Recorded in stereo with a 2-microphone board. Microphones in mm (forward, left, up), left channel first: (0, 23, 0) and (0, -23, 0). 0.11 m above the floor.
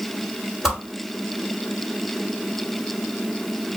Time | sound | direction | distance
0.6 | a whoosh | 5° right (ahead or behind) | 2.5 m